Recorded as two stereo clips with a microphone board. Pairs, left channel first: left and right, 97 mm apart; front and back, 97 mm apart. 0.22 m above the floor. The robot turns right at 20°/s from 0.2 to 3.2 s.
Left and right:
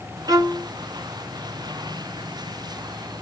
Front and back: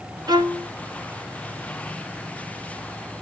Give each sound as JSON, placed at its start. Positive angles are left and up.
{"t": 0.3, "sound": "a violin", "azimuth_deg": -140, "distance_m": 1.1}